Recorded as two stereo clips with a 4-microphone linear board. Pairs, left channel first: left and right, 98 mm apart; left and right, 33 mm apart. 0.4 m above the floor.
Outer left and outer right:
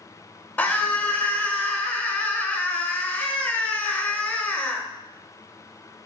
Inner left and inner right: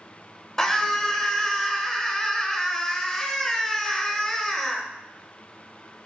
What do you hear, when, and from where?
0.6 s a scream: 15° left (ahead or behind), 1.2 m